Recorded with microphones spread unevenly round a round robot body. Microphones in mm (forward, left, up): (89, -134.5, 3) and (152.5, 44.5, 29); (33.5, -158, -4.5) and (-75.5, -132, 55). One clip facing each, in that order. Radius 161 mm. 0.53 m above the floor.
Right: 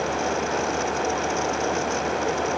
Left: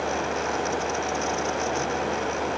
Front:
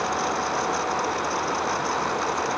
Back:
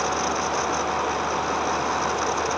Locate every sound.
Only background noise.